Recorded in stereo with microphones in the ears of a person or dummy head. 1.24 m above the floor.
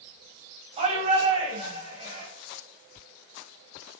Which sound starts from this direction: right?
A shout, at 0.8 s.